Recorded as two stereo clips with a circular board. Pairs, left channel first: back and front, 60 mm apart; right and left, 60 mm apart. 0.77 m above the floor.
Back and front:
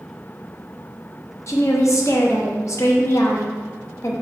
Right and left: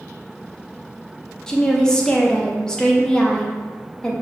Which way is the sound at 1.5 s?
165° right.